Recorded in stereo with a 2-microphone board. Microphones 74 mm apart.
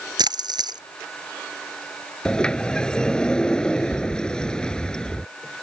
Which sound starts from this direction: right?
A splash, at 0.2 s.